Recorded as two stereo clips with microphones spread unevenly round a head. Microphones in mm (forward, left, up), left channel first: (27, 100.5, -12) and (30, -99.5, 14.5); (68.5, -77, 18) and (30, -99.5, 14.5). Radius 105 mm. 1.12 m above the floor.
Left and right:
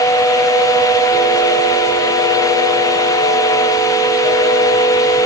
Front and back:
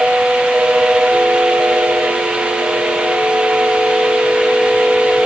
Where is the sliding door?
I don't hear a sliding door.